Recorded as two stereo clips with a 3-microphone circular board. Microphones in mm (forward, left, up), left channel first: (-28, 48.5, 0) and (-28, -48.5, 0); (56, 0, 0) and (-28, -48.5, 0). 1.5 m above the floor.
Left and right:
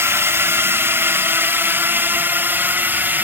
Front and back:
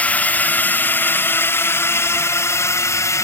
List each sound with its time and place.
0.0 s a drone: 35° right; by 3.3 s 20° right